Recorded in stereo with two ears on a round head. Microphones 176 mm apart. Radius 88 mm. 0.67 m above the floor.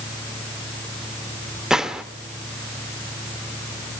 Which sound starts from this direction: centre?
A gunshot, at 1.7 s.